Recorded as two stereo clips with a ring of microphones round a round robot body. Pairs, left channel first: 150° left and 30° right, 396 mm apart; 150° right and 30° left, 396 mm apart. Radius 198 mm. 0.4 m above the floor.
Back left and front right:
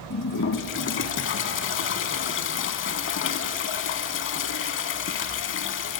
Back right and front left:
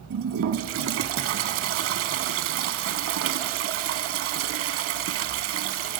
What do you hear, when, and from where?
0.1 s a toilet flushing: 90° left, 0.6 m